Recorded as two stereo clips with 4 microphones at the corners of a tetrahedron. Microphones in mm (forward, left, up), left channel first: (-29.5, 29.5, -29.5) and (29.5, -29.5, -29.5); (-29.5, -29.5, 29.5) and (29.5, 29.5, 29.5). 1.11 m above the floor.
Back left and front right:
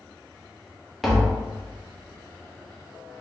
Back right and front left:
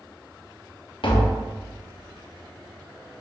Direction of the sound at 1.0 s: 135° right.